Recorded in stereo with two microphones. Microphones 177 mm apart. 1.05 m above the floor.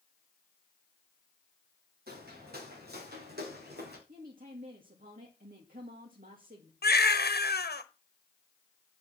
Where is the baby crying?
70° left (ahead or behind), 1.1 m.